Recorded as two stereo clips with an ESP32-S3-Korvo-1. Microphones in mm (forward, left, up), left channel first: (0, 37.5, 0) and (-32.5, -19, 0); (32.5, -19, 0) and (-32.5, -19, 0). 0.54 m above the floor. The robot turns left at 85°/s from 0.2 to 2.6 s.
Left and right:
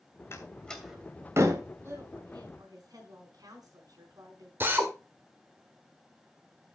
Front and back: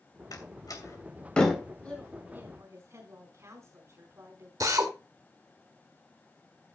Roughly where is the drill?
Behind.